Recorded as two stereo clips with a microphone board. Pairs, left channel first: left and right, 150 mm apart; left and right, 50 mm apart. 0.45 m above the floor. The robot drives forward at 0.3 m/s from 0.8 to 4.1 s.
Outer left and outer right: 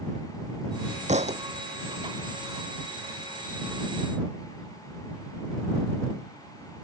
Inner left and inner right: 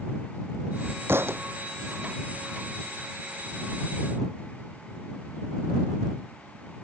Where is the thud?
50° right (ahead or behind).